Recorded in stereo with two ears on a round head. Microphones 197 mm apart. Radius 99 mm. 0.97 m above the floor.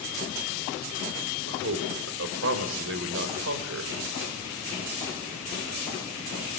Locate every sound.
1.5 s a man speaking: 65° right (ahead or behind), 3.5 m